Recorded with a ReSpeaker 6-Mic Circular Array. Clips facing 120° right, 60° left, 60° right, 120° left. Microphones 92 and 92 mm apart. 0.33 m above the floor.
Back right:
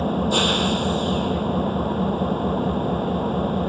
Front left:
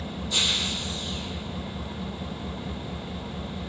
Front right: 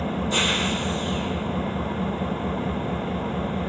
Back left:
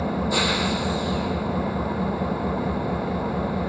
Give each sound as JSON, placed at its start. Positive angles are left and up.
{"t": 0.0, "sound": "an engine running", "azimuth_deg": -160}